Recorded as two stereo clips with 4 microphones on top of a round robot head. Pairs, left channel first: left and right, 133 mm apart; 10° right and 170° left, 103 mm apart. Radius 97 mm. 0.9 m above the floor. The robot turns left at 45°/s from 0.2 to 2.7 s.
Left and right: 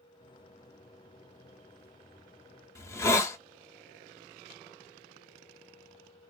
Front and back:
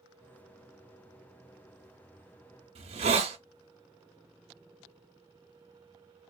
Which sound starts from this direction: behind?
A hiss, at 2.8 s.